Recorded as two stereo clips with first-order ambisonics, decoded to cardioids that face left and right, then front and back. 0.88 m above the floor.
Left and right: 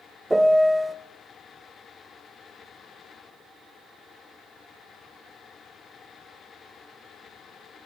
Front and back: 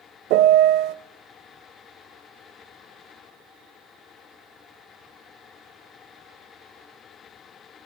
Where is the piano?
175° right, 0.9 m.